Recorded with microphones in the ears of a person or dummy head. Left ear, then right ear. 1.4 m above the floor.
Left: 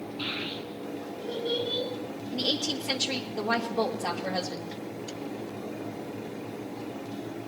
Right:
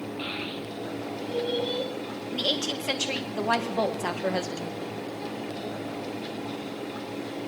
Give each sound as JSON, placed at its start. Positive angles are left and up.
{"t": 0.2, "sound": "a child speaking", "side_deg": -25, "distance_m": 9.0}
{"t": 2.3, "sound": "a woman speaking", "side_deg": -45, "distance_m": 1.5}